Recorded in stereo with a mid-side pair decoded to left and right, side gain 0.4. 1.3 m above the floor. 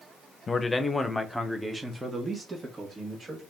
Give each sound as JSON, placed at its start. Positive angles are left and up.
{"t": 0.5, "sound": "a man speaking", "azimuth_deg": 35, "distance_m": 1.1}